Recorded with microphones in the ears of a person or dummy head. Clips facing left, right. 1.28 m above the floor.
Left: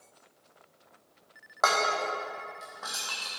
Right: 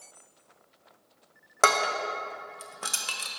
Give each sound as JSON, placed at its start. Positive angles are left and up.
{"t": 1.6, "sound": "dishes clattering", "side_deg": -35, "distance_m": 0.6}